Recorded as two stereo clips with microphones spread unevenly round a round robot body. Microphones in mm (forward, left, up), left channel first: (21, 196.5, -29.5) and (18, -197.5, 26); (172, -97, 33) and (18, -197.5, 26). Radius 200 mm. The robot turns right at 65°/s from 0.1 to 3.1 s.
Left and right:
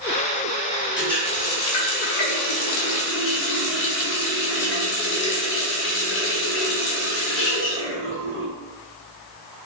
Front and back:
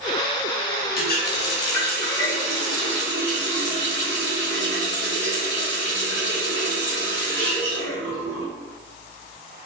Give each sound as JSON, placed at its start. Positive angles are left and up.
{"t": 1.0, "sound": "a running tap", "azimuth_deg": 0, "distance_m": 0.8}